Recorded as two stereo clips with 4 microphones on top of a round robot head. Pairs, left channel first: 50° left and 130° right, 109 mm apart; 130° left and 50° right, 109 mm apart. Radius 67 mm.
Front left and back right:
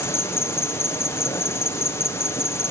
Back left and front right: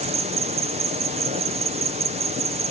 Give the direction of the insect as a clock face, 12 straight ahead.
1 o'clock.